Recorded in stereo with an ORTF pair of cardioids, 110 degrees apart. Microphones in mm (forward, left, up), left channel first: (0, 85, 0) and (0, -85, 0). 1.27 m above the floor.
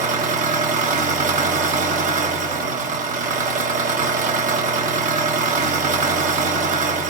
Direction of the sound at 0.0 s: 50° right.